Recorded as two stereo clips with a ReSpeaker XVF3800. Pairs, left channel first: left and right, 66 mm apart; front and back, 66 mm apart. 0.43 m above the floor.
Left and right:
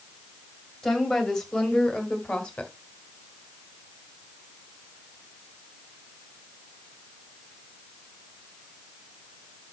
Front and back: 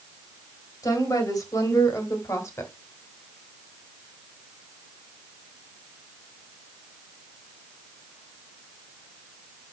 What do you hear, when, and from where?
0.8 s a woman speaking: 5° left, 3 m; by 2.7 s 20° left, 2.0 m